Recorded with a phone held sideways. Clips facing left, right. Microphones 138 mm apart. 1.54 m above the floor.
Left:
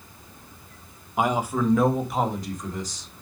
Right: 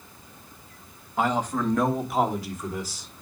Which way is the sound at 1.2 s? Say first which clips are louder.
Left 1 dB; 15° left (ahead or behind).